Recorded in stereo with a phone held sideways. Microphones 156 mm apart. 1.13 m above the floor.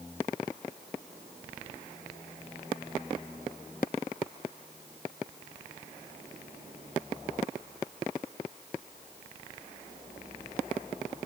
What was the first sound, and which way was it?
Only background noise.